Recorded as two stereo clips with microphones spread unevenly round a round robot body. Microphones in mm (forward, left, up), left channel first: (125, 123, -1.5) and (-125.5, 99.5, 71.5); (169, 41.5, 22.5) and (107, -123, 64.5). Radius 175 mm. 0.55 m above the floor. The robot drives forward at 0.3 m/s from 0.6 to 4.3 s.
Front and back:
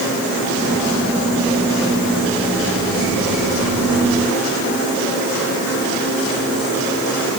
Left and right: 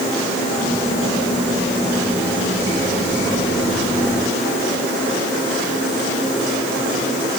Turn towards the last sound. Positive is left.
No sound to turn to.